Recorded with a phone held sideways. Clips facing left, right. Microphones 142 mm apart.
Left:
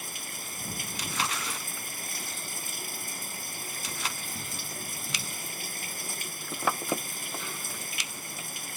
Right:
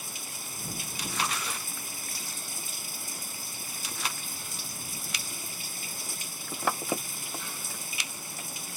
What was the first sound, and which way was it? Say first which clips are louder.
Running water: left 1 dB; 60° left (ahead or behind).